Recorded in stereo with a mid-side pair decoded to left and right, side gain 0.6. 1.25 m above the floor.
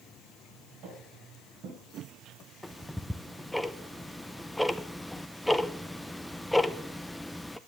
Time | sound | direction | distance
0.8 | footsteps | 65° right | 4.5 m
2.6 | ticking | 5° left | 0.7 m